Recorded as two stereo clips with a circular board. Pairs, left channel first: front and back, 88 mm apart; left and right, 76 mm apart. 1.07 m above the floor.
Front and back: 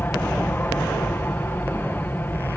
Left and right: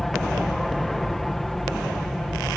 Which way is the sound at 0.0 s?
5° left.